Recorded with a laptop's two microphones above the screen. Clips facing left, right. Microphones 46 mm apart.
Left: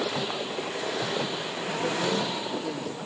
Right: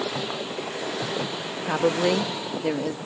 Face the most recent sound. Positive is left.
turn(degrees=-80)